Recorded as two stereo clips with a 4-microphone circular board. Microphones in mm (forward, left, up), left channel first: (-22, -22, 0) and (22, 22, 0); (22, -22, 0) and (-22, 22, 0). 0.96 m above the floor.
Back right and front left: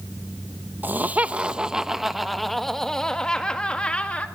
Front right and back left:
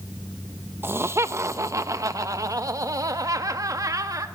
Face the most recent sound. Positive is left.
turn(degrees=155)